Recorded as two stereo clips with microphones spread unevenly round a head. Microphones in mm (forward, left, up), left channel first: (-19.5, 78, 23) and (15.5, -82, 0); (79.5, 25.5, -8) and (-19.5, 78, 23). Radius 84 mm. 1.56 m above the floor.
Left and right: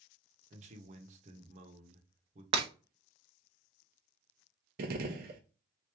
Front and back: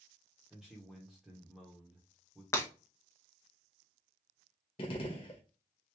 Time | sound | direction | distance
0.5 | a man speaking | 125° right | 0.9 m
2.5 | breaking glass | 100° right | 0.7 m
4.8 | a gunshot | 80° right | 0.6 m